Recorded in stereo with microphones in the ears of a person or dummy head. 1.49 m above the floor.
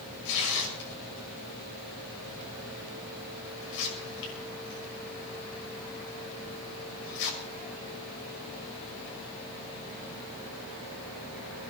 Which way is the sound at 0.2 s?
70° left (ahead or behind).